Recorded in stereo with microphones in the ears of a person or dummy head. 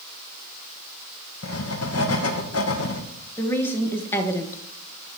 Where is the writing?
75° left (ahead or behind), 1.3 m.